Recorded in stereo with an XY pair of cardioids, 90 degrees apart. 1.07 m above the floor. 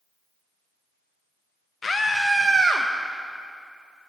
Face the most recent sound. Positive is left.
turn(degrees=-60)